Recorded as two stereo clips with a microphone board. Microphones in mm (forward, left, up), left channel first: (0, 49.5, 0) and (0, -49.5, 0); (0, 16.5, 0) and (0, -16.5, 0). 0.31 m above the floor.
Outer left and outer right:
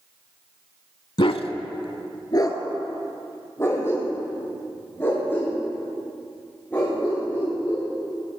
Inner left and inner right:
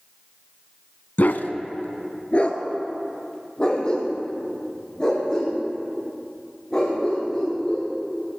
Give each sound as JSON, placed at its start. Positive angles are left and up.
{"t": 1.2, "sound": "a dog barking", "side_deg": 55, "distance_m": 0.7}